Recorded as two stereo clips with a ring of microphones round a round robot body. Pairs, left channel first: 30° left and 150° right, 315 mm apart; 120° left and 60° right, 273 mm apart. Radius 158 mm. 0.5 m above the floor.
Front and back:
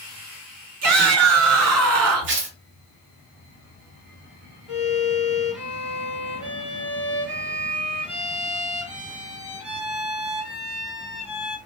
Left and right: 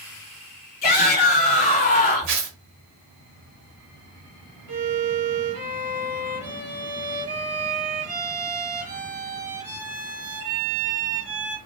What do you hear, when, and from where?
0.8 s a shout: 175° left, 1.5 m
2.3 s tearing paper: 95° right, 1.1 m
4.7 s a violin: 65° right, 2.0 m